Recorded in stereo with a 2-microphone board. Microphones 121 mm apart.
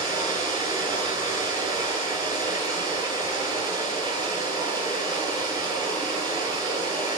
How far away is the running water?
About 9.5 m.